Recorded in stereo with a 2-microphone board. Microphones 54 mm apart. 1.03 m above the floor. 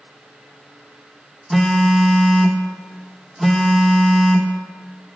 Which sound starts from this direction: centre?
A phone buzzing, at 1.5 s.